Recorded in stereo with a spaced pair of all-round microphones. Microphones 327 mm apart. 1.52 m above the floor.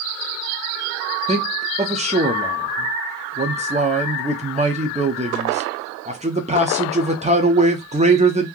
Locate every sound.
1.3 s a man speaking: 20° right (ahead or behind), 0.7 m